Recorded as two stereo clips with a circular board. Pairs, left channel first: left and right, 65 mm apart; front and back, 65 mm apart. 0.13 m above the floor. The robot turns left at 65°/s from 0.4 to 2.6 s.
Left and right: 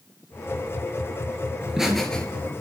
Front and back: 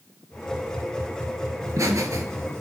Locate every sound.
1.6 s laughter: 160° right, 2 m; by 2.6 s 135° left, 2 m